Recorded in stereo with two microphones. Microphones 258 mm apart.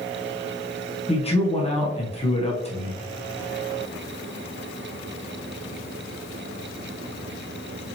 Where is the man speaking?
25° left (ahead or behind), 1.1 m.